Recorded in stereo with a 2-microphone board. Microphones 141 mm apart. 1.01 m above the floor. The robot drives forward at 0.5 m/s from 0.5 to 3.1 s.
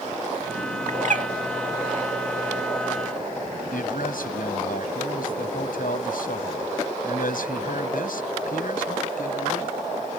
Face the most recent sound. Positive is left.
turn(degrees=80)